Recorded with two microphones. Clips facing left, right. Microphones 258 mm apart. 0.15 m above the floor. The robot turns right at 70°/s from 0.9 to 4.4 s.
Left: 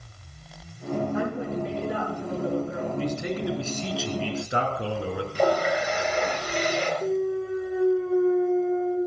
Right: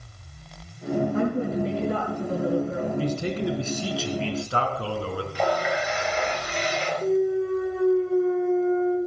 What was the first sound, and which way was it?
A woman speaking, 145° right.